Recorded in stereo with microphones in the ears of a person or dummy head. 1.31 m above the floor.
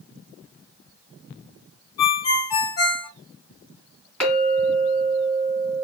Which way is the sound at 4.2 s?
10° left (ahead or behind).